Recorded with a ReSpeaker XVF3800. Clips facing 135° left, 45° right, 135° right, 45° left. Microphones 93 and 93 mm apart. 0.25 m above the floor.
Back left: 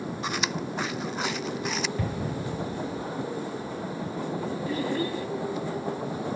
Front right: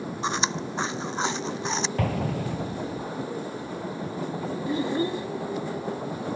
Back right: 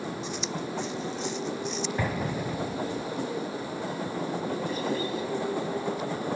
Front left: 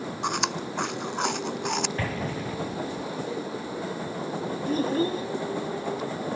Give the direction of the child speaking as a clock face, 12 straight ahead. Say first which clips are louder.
Front right 4 dB, front left 4 dB; 11 o'clock.